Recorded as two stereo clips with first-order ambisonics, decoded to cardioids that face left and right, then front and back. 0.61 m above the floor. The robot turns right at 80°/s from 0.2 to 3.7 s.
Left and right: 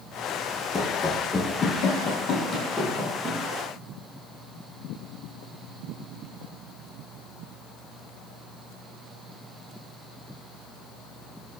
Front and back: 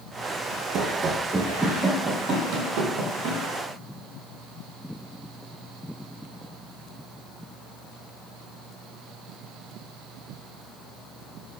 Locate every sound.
0.7 s running footsteps: 160° left, 0.7 m; by 3.4 s 145° right, 1.7 m